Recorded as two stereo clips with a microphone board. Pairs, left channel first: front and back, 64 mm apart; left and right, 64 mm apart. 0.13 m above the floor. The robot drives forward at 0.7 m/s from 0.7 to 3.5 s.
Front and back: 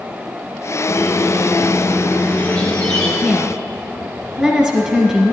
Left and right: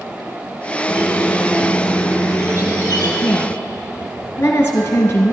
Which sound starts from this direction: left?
A woman speaking, at 3.2 s.